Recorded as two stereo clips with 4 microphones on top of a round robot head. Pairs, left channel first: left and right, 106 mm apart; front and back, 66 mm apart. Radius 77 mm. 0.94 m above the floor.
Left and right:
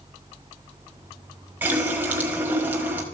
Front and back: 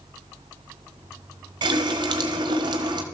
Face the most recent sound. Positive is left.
turn(degrees=-165)